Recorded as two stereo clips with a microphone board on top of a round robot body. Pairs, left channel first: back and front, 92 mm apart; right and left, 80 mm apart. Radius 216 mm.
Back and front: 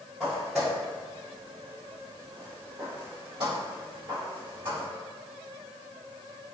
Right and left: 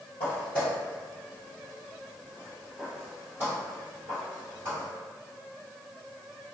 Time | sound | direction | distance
0.2 | footsteps | 95° right | 1.5 m